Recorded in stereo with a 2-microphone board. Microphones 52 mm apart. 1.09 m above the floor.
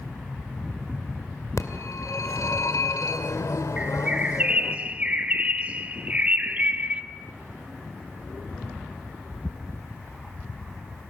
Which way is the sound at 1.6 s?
85° left.